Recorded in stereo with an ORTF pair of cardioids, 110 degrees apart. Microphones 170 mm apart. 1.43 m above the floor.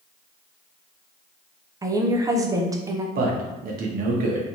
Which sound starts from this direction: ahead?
A woman speaking, at 1.8 s.